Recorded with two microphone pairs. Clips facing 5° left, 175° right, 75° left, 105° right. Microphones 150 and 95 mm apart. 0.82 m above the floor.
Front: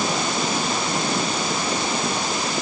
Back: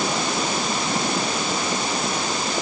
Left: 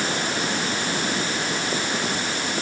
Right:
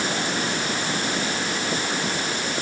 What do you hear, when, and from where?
Only background noise.